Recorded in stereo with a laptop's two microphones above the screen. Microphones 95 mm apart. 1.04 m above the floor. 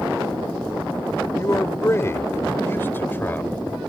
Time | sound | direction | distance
1.4 | a man speaking | 35° left (ahead or behind) | ?